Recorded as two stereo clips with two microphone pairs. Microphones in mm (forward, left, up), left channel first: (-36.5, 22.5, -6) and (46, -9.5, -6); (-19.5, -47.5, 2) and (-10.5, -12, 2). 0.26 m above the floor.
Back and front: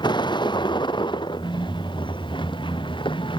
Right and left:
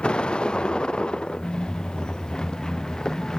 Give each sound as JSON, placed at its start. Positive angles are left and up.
{"t": 0.0, "sound": "a vehicle", "azimuth_deg": -170}